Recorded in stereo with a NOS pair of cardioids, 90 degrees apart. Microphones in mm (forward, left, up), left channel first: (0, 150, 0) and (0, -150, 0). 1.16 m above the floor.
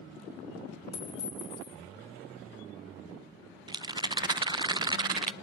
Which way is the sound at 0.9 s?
60° left.